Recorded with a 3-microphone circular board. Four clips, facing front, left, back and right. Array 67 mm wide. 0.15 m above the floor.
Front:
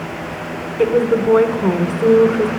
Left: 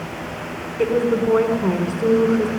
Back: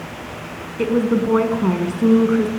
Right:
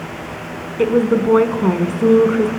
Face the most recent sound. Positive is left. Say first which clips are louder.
# right 3 dB, front 3 dB
turn(degrees=-85)